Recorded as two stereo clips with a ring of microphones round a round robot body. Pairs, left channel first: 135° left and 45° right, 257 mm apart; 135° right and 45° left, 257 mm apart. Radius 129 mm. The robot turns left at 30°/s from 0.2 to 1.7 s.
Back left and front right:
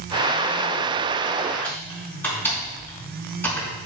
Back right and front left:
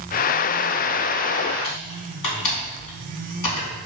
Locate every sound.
1.6 s typing on a keyboard: 140° right, 4 m